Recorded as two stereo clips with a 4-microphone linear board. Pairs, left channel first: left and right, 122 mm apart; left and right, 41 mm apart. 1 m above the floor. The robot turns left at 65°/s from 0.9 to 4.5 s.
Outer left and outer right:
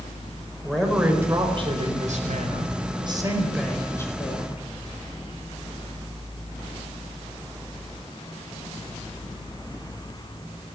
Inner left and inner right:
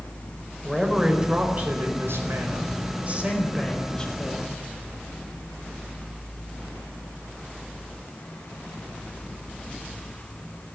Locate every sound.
0.6 s a man speaking: straight ahead, 5 m; by 4.6 s 125° left, 5 m